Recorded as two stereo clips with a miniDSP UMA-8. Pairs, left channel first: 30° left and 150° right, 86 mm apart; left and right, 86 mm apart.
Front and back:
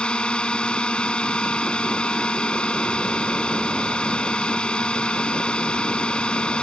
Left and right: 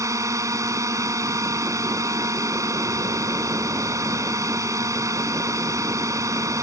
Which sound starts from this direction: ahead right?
A drone, at 0.0 s.